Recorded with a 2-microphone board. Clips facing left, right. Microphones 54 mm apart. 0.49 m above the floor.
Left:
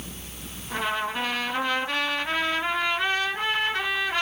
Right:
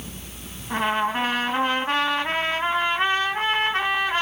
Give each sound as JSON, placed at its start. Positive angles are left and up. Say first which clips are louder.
{"t": 0.7, "sound": "a trumpet", "louder": "right 5 dB", "side_deg": -40, "distance_m": 2.5}